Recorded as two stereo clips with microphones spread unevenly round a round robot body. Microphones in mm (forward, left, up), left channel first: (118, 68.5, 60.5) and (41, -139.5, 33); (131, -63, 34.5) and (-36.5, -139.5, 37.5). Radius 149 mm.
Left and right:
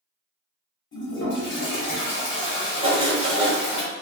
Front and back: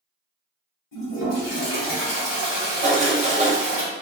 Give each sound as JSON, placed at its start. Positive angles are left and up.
{"t": 0.9, "sound": "a toilet flushing", "azimuth_deg": 35, "distance_m": 1.2}
{"t": 2.8, "sound": "writing", "azimuth_deg": -145, "distance_m": 1.1}